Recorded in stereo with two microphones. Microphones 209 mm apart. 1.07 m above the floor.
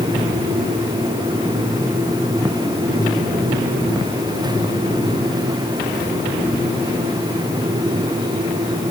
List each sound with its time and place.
Only background noise.